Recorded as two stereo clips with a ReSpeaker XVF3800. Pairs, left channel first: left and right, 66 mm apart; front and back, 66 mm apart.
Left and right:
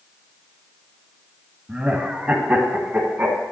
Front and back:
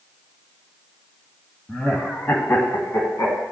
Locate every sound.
1.7 s laughter: 55° right, 1.0 m; by 3.4 s 30° right, 1.9 m